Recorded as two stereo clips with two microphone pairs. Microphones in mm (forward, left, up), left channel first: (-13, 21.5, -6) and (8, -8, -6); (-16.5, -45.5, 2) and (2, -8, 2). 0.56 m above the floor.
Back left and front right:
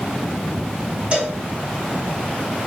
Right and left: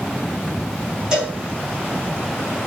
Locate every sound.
1.1 s a cowbell: 5° right, 1.8 m